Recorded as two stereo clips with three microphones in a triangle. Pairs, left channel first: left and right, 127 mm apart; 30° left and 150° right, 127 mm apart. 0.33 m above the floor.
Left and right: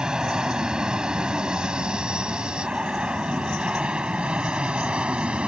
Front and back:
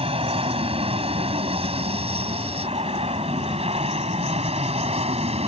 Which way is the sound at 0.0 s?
175° right.